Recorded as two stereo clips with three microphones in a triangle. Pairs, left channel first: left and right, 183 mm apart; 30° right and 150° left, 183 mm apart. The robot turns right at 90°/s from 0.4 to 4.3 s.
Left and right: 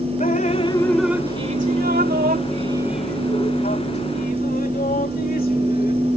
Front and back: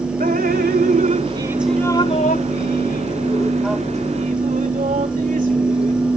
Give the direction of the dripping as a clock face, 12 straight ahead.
8 o'clock.